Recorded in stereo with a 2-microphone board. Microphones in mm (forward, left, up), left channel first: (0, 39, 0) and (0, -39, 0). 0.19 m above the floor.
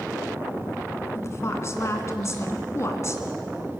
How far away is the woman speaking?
About 2.5 m.